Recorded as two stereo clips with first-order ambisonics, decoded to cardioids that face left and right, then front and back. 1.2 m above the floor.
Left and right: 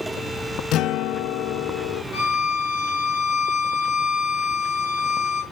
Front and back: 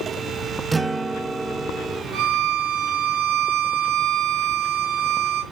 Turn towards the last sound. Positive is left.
turn(degrees=135)